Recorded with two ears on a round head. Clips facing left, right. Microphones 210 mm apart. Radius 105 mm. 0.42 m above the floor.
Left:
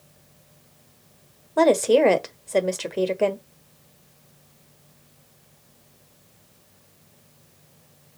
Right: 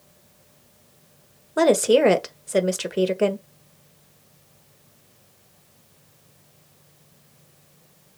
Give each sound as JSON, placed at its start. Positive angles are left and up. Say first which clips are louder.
{"t": 1.6, "sound": "a woman speaking", "louder": "even", "side_deg": -15, "distance_m": 1.2}